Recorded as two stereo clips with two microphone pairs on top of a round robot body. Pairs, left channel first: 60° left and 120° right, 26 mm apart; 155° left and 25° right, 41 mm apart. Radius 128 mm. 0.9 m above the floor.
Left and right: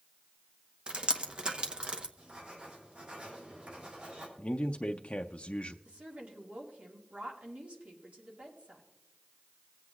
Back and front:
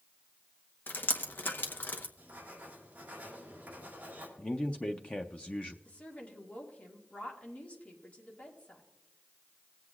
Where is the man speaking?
85° left, 0.5 m.